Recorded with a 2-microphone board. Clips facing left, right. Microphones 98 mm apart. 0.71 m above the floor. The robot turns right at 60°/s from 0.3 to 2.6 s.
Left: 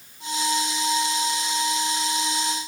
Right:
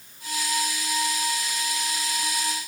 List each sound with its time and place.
Only background noise.